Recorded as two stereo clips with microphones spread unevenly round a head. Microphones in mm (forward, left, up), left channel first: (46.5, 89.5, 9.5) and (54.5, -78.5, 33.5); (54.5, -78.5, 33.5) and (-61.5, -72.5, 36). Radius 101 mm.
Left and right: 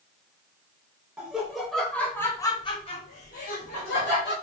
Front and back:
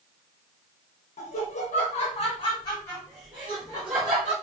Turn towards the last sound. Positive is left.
turn(degrees=130)